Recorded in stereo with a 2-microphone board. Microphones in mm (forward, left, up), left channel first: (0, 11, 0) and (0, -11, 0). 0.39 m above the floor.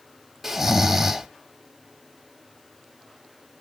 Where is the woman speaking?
No woman speaking in this recording.